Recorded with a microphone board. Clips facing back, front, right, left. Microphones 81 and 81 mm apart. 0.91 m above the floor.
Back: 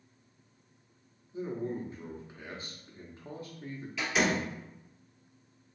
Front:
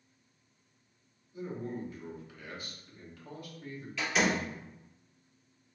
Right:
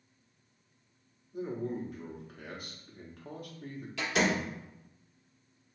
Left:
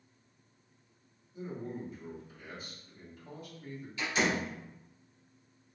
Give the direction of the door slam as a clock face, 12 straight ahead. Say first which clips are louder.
Even, right 2 dB; 3 o'clock.